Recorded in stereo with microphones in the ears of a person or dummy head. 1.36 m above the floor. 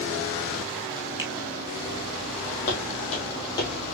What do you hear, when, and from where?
1.2 s a finger snap: 10° right (ahead or behind), 1.2 m
2.7 s footsteps: 40° left (ahead or behind), 2.5 m; by 3.9 s 15° left (ahead or behind), 2.5 m